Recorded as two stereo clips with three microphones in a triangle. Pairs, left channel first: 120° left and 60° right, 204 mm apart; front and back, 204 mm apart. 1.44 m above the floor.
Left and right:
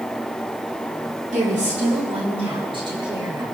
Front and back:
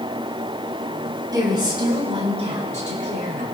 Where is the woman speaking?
110° right, 4 m; by 3.4 s 130° right, 6.5 m.